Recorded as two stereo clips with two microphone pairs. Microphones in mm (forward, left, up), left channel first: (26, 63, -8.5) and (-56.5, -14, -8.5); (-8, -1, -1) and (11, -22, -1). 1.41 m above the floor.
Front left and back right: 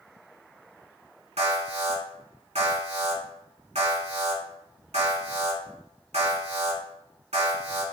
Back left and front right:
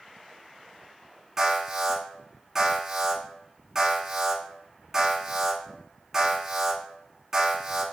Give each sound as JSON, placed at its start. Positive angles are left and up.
{"t": 1.4, "sound": "an alarm", "azimuth_deg": -120, "distance_m": 3.5}